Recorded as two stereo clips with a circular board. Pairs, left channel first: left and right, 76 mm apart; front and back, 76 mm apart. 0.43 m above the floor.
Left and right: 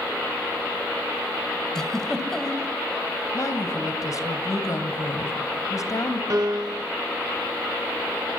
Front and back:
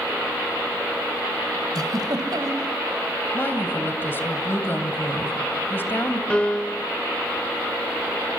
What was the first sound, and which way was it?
A giggle, 170° left.